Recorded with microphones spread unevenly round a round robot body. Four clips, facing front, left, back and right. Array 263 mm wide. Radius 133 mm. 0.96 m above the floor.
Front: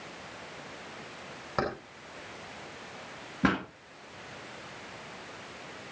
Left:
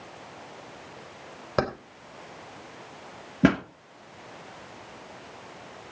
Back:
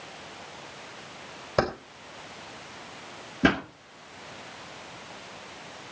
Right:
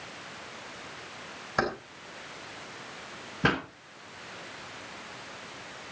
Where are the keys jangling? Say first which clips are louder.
Left 2 dB, back 6 dB; 120° left, 3.5 m.